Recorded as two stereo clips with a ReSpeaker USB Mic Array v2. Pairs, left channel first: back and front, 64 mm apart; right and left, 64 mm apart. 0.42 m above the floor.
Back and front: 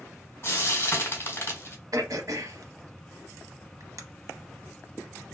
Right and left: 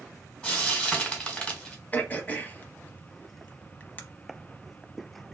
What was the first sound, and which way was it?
Frying, 150° right.